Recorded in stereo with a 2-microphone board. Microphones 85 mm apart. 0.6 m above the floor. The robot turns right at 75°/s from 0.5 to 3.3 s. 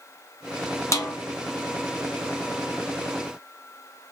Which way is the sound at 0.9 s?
40° left (ahead or behind).